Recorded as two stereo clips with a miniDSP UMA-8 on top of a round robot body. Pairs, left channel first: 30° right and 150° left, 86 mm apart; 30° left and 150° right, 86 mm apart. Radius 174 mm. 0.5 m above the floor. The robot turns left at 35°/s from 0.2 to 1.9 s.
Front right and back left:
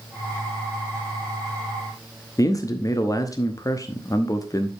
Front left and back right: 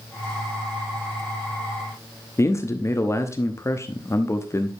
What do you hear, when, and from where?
2.4 s a man speaking: 10° right, 1.1 m